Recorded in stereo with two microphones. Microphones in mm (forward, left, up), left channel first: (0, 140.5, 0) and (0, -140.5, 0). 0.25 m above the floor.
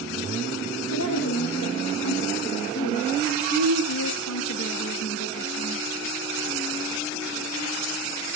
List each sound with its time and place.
0.9 s a woman speaking: 70° left (ahead or behind), 9.5 m; by 5.8 s 50° left (ahead or behind), 10 m